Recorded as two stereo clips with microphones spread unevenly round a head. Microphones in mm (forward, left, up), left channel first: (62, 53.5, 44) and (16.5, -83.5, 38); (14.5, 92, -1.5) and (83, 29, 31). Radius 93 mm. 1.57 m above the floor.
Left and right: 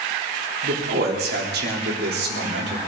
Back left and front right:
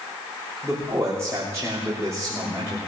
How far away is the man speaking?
About 3.5 m.